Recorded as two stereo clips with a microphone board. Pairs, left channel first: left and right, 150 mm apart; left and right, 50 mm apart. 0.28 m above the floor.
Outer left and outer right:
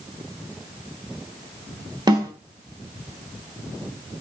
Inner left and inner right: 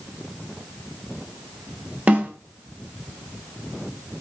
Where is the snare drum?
25° right (ahead or behind), 2.5 m.